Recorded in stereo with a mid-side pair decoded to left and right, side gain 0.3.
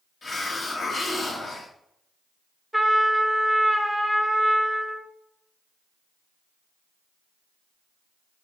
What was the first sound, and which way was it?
A hiss, 55° left.